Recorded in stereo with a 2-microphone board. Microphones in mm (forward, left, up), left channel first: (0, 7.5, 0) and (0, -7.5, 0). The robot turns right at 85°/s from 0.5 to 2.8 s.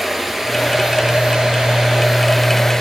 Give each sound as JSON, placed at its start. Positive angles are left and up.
{"t": 0.0, "sound": "running water", "azimuth_deg": -165, "distance_m": 3.0}